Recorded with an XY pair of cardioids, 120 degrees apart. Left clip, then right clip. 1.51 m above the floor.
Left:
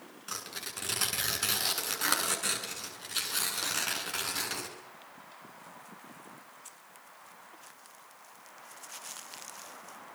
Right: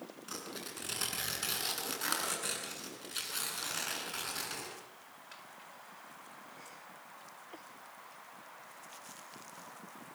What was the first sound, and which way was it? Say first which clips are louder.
Tearing paper: left 5 dB; 25° left.